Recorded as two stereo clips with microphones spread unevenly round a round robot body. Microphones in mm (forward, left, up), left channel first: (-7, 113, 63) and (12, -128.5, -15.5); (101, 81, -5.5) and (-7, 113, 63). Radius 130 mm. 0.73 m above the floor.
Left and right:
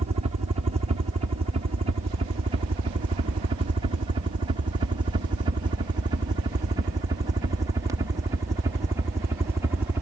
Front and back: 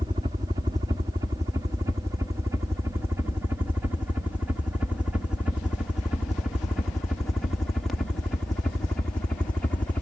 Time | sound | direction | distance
0.0 | a helicopter | 110° right | ?